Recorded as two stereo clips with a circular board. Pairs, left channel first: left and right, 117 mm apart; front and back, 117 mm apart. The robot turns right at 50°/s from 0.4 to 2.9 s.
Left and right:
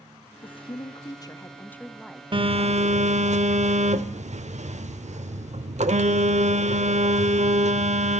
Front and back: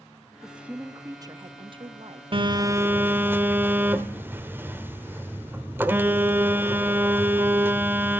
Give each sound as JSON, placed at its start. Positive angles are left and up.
{"t": 0.4, "sound": "a woman speaking", "azimuth_deg": 95, "distance_m": 0.8}
{"t": 2.3, "sound": "a phone buzzing", "azimuth_deg": -135, "distance_m": 0.9}